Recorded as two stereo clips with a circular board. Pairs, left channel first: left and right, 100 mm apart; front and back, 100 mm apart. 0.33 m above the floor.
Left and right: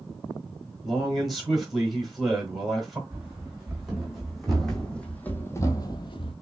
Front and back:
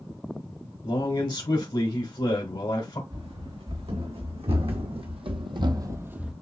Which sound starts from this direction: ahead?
A man speaking, at 0.8 s.